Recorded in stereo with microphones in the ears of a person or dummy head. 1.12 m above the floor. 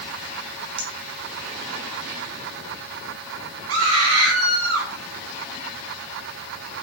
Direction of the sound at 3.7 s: 75° right (ahead or behind).